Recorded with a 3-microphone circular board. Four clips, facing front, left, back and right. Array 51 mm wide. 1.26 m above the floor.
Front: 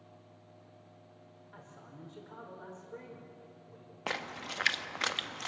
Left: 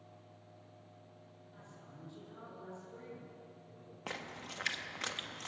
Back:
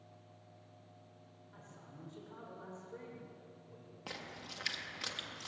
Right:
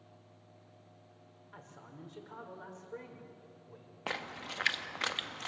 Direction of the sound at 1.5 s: 65° right.